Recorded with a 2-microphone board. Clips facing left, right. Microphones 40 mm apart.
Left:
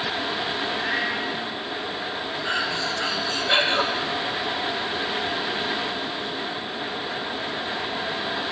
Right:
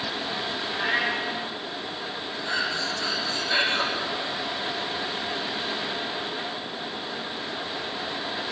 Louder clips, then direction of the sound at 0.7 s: Right 3 dB; 5° left (ahead or behind).